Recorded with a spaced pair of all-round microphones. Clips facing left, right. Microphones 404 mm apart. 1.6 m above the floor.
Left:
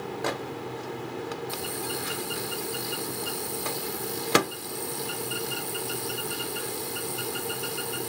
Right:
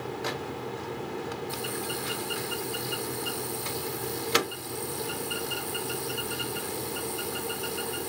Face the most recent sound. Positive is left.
turn(degrees=70)  # may be behind; listen again after turning